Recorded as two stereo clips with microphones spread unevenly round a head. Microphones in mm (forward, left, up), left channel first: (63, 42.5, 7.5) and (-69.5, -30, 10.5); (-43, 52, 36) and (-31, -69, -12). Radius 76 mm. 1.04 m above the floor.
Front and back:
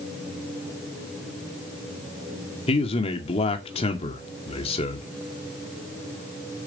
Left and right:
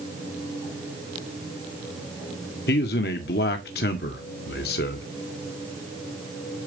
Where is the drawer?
No drawer in this recording.